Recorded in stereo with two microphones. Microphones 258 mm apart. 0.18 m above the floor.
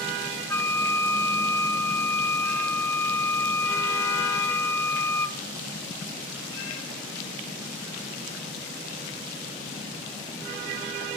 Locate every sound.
0.5 s a flute: 10° left (ahead or behind), 1.1 m